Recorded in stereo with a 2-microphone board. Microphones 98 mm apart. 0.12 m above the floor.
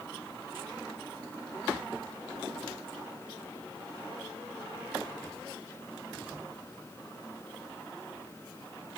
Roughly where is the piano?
No piano in this recording.